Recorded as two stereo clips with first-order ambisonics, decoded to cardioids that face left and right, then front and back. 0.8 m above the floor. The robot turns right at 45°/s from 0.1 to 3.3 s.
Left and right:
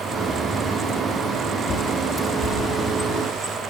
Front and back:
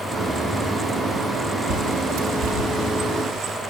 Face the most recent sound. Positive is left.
turn(degrees=-145)